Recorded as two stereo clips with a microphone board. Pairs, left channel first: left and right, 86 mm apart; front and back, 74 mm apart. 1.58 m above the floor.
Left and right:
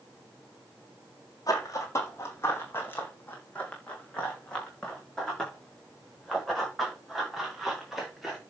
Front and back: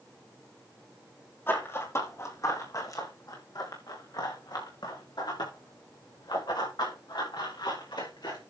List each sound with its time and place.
1.5 s running footsteps: 50° left, 2.5 m; by 8.4 s 5° right, 7 m